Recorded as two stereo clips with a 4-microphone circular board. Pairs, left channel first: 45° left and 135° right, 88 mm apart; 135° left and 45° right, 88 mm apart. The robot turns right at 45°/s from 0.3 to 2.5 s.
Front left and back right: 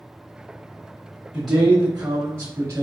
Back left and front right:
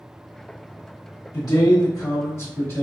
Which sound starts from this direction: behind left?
A man speaking, at 1.3 s.